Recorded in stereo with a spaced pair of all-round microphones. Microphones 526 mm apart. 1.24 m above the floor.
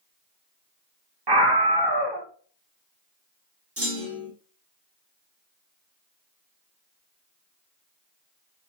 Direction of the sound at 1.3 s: 50° right (ahead or behind).